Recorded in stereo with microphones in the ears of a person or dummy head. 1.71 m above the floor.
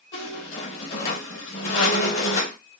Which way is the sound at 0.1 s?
35° left (ahead or behind).